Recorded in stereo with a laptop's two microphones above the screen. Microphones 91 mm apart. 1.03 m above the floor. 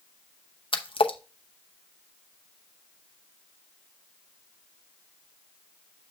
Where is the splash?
75° left (ahead or behind), 0.8 m.